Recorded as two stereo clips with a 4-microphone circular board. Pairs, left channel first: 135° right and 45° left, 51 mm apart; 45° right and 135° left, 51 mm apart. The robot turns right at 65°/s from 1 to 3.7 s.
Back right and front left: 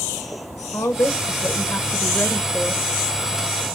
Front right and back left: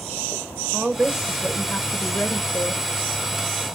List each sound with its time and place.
0.7 s a woman speaking: 155° right, 0.5 m; by 2.8 s 35° right, 0.5 m